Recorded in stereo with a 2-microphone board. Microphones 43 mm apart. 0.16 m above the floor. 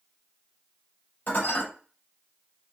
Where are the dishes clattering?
50° left (ahead or behind), 2.5 m.